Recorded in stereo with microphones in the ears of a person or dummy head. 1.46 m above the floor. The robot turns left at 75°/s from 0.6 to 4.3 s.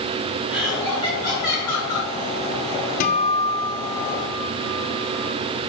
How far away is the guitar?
About 0.7 m.